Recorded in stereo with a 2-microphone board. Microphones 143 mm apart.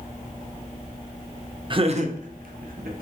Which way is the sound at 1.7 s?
35° right (ahead or behind).